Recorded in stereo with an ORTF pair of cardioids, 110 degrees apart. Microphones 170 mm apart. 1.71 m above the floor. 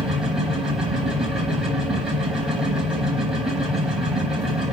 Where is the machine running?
5° right, 3 m.